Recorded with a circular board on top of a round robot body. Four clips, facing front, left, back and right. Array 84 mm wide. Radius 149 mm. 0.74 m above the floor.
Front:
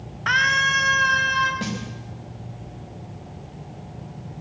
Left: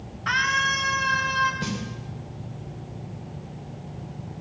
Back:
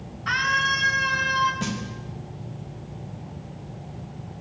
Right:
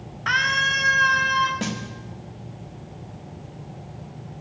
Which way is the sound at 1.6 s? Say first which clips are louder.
Right 2 dB, front 1 dB; 75° right.